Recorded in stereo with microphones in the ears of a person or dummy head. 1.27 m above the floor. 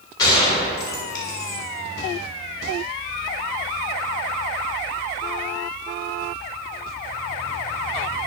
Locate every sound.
0.2 s a gunshot: 25° left (ahead or behind), 2 m